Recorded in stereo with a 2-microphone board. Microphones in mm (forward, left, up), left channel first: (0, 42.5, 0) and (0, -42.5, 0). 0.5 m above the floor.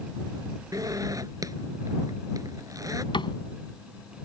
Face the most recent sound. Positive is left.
turn(degrees=70)  # may be behind; listen again after turning